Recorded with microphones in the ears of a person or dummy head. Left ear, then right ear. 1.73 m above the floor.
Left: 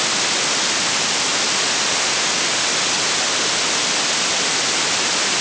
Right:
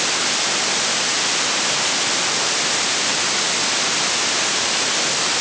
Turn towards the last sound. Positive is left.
No sound to turn to.